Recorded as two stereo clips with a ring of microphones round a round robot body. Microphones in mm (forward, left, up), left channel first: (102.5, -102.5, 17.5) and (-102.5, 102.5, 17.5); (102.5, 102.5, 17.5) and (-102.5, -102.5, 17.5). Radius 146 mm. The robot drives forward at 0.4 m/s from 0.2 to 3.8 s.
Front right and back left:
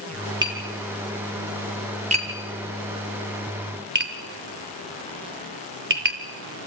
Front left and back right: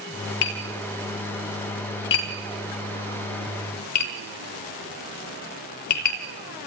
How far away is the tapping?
About 4 m.